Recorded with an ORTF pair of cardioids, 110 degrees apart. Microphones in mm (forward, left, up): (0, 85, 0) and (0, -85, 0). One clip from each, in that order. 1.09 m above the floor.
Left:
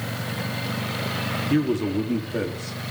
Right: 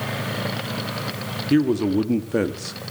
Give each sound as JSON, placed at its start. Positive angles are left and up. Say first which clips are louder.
{"t": 1.5, "sound": "a man speaking", "louder": "right 5 dB", "azimuth_deg": -15, "distance_m": 2.5}